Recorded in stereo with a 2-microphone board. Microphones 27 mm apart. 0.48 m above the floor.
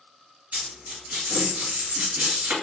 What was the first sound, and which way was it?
A dropped coin, 85° right.